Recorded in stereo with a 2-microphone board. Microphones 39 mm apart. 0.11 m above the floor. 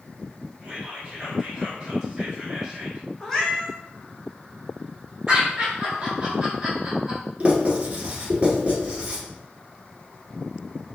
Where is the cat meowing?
15° left (ahead or behind), 1.7 m.